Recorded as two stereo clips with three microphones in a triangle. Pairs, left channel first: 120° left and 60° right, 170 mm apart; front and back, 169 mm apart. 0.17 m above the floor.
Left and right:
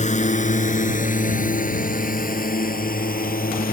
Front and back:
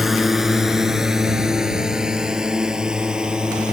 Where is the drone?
90° left; by 3.7 s 95° left.